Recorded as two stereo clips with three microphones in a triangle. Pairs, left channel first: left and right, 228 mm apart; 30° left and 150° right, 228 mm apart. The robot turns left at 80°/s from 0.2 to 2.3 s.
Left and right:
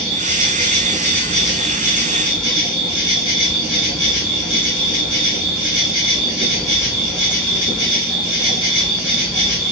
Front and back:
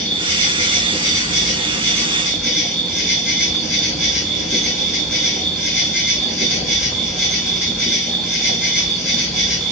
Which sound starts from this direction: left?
An insect, at 0.0 s.